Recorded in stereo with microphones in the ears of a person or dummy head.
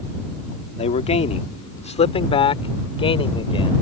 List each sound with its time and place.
0.8 s a man speaking: 40° left (ahead or behind); by 3.8 s 35° left (ahead or behind)